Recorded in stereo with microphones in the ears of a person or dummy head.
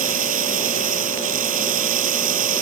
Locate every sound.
0.0 s running water: 45° right (ahead or behind)